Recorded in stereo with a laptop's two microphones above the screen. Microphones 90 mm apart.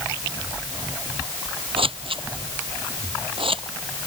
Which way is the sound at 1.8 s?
80° right.